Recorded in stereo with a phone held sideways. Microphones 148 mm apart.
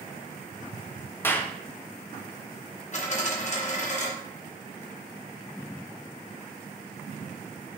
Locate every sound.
1.2 s a clap: 15° left (ahead or behind), 1.0 m
2.9 s a dropped coin: 50° left (ahead or behind), 2 m